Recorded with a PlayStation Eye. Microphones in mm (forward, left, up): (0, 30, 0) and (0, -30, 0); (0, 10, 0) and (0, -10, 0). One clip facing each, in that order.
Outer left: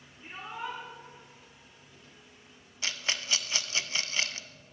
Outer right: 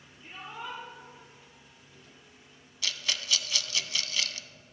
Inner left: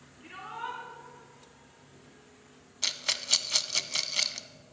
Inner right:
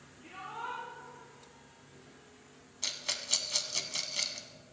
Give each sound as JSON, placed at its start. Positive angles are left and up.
{"t": 0.2, "sound": "a shout", "side_deg": 40, "distance_m": 2.5}
{"t": 2.8, "sound": "a rattle", "side_deg": 30, "distance_m": 0.6}